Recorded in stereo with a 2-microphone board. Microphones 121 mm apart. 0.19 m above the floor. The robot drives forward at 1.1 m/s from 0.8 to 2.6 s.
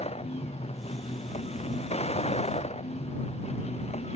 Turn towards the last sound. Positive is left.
turn(degrees=60)  # may be behind; listen again after turning